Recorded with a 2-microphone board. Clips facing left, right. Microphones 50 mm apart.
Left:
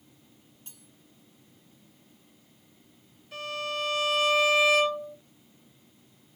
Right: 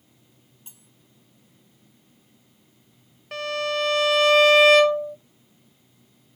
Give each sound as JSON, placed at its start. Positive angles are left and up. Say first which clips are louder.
{"t": 0.7, "sound": "cutlery clinking", "louder": "even", "side_deg": -15, "distance_m": 1.0}
{"t": 3.3, "sound": "a violin", "louder": "right 7 dB", "side_deg": -70, "distance_m": 0.7}